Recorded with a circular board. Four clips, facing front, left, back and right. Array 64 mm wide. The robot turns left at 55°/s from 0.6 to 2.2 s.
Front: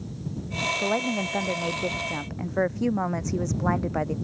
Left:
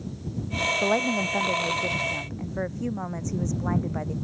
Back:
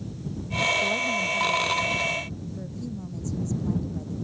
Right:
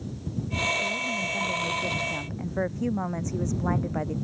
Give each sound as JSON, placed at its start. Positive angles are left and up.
{"t": 0.8, "sound": "a woman speaking", "azimuth_deg": 70}